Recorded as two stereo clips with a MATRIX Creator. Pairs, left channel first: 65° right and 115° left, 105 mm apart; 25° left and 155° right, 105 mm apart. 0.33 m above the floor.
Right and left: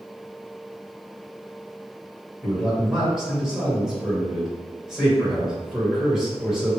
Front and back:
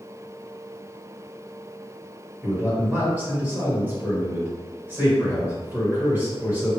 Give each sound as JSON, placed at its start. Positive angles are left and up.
{"t": 2.4, "sound": "a man speaking", "azimuth_deg": -175, "distance_m": 1.5}